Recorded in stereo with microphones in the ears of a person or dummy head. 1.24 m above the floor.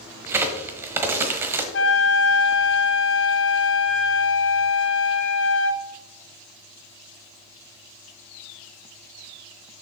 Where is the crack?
15° right (ahead or behind), 1.1 m.